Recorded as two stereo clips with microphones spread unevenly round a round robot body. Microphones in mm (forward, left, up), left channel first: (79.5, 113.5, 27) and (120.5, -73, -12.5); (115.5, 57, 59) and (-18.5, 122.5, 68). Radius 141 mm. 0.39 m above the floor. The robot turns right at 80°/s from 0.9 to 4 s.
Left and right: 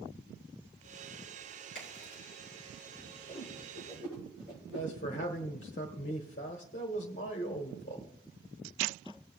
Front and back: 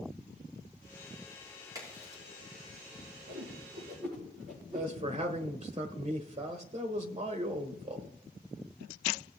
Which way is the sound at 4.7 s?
135° left.